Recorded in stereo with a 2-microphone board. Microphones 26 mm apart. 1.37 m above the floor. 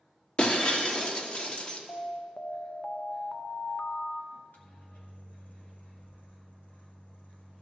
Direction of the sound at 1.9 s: 40° left (ahead or behind).